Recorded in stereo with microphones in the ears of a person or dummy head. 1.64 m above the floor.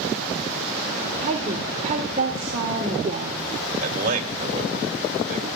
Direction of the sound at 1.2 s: 40° right (ahead or behind).